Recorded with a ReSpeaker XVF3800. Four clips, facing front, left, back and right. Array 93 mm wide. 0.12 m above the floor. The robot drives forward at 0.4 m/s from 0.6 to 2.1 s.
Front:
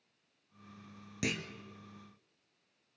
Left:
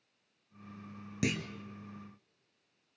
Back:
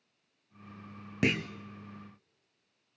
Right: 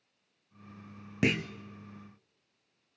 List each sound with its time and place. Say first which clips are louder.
1.2 s a clunk: right 5 dB, back 8 dB; 135° right, 0.8 m; by 1.5 s 140° right, 0.9 m